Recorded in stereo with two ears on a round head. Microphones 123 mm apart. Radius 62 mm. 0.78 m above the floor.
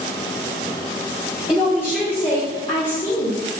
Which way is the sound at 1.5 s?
10° left (ahead or behind).